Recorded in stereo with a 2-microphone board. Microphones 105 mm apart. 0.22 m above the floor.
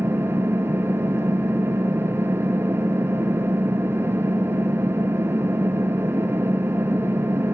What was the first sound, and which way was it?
An engine running, 25° right (ahead or behind).